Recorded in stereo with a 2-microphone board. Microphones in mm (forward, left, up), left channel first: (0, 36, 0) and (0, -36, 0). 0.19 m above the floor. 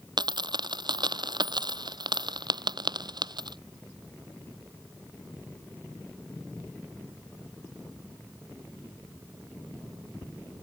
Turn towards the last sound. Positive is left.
turn(degrees=-70)  # may be behind; listen again after turning